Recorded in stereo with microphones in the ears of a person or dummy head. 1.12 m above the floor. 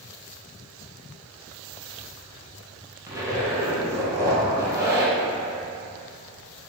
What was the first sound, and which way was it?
A zipper, 10° right (ahead or behind).